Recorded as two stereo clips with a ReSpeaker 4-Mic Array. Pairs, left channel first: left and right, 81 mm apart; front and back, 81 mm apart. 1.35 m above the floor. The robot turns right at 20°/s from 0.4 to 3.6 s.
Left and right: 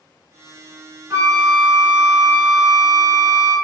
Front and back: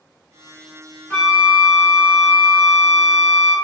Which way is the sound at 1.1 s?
55° right.